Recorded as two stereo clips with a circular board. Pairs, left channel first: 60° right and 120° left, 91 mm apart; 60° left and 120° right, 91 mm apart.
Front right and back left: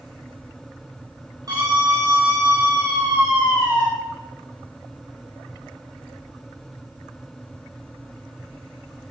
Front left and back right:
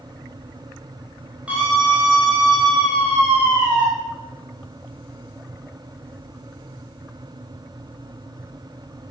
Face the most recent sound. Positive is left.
turn(degrees=165)